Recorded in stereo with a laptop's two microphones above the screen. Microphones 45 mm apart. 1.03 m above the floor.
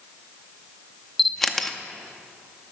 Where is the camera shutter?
5° left (ahead or behind), 0.6 m.